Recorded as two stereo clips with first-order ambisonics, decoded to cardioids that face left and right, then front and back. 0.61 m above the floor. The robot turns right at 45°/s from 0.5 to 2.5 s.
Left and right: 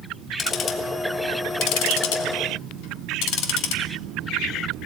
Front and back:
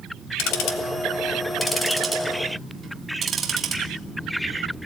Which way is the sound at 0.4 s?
25° left.